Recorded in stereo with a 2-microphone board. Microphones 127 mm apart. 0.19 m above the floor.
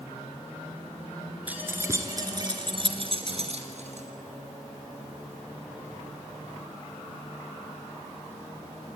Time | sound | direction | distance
1.5 | keys jangling | 15° right (ahead or behind) | 2 m